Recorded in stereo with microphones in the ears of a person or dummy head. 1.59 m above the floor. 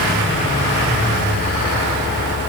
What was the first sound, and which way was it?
Only background noise.